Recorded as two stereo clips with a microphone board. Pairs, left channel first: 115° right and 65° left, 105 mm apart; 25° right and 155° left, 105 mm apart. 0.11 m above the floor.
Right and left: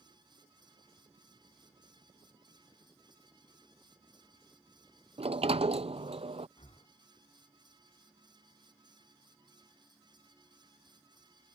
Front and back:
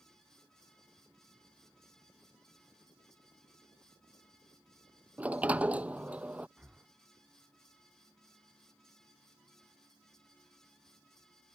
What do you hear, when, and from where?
5.2 s a sliding door: 80° left
6.6 s breathing: 125° right